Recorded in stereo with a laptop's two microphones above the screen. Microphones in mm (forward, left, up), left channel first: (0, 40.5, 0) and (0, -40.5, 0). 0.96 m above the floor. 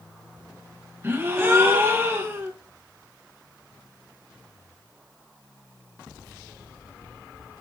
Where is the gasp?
25° right (ahead or behind), 1.1 m.